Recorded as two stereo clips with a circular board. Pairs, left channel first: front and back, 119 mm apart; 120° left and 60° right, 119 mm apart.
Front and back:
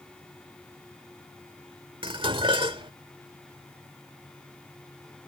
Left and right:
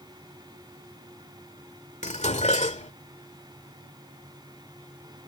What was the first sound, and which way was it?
Dishes clattering, 140° left.